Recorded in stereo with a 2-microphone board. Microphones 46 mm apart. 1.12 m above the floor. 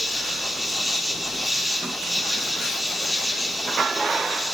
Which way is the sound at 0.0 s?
Centre (ahead or behind).